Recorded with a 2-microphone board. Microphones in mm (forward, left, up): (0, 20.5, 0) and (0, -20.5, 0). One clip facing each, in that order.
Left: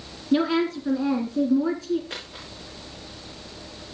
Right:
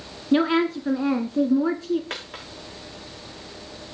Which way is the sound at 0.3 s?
25° right (ahead or behind).